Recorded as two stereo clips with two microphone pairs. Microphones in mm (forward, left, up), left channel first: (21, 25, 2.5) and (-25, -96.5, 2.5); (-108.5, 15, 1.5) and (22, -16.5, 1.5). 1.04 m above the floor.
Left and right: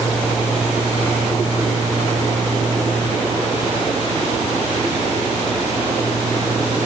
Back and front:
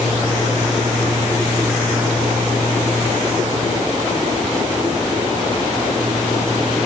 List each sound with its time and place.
Only background noise.